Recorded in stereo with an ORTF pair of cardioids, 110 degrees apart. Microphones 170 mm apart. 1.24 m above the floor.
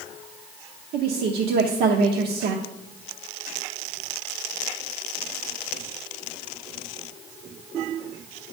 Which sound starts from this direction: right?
A woman speaking, at 0.9 s.